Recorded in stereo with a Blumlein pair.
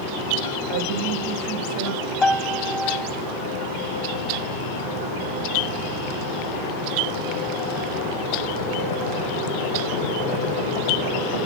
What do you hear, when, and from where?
0.7 s a woman speaking: 45° right, 2.5 m
2.2 s a piano: 10° left, 1.4 m